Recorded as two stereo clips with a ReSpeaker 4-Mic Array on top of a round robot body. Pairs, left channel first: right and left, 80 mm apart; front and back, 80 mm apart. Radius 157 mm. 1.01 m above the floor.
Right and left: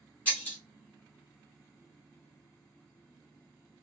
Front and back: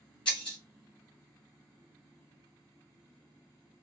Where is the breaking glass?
20° right, 1.4 m.